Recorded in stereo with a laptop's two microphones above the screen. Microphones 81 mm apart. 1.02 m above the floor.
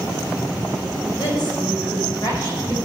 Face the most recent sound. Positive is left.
turn(degrees=55)  # may be behind; listen again after turning